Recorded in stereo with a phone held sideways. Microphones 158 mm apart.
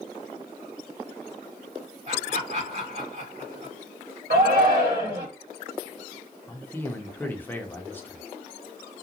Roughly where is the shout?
Right.